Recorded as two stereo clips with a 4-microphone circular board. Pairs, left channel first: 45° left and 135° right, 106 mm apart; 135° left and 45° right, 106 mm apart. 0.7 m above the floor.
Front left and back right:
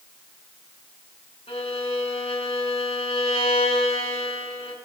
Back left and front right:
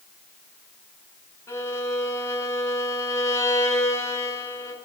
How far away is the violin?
About 6 m.